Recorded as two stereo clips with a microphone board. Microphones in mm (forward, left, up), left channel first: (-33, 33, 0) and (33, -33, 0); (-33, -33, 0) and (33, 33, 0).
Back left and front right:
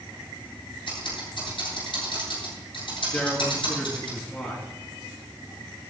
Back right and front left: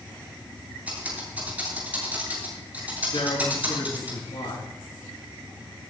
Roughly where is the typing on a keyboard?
Behind left.